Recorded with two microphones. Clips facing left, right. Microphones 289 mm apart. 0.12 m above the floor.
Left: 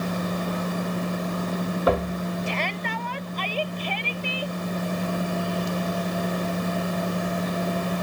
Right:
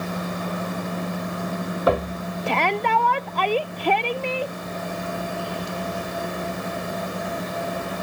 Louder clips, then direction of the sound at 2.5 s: Right 6 dB; 70° right (ahead or behind).